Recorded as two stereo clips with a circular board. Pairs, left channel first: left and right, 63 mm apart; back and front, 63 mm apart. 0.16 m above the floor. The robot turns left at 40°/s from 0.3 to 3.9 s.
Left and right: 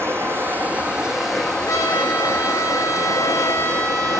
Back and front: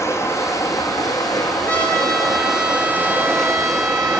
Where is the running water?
135° right, 6.5 m; by 4.2 s 80° left, 6.5 m.